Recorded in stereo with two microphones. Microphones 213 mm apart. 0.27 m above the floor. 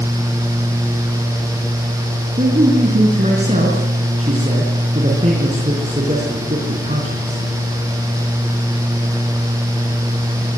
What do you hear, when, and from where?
2.4 s a man speaking: 30° right (ahead or behind), 4 m